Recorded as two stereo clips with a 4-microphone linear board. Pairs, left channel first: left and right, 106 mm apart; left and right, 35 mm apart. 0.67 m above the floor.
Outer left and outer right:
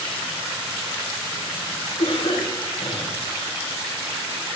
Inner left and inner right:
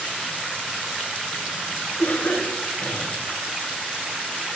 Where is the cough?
65° left (ahead or behind), 3.5 m.